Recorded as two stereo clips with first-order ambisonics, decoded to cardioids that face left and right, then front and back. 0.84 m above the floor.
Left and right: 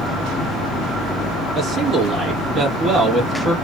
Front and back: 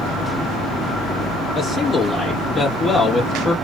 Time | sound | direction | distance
1.5 | a man speaking | 55° right | 0.9 m